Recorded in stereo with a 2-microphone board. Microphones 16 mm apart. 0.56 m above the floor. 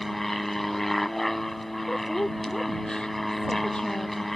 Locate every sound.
0.0 s an aircraft: 20° left (ahead or behind)
1.9 s a woman speaking: 55° left (ahead or behind)